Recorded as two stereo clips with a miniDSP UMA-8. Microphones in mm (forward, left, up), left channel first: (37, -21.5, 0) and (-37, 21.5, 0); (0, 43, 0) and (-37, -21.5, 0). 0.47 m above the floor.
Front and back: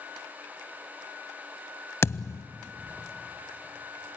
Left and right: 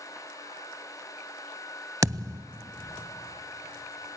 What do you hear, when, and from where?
2.0 s a thud: 85° right, 0.6 m